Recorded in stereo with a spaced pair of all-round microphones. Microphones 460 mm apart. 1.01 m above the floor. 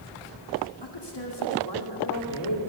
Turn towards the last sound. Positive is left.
turn(degrees=55)  # may be behind; listen again after turning